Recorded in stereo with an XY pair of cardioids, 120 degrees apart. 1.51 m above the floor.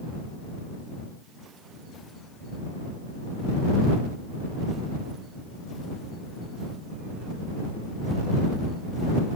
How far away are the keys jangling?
I don't hear keys jangling.